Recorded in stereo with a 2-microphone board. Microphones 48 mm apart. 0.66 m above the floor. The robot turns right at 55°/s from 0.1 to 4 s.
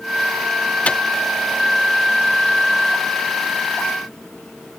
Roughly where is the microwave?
Left.